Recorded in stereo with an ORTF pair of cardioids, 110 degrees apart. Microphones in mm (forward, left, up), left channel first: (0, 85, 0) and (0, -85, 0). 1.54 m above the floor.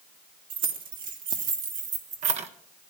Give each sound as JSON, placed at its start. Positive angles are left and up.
{"t": 0.5, "sound": "keys jangling", "azimuth_deg": -65, "distance_m": 2.0}